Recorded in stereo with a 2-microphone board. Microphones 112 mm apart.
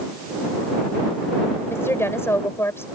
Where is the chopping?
I don't hear chopping.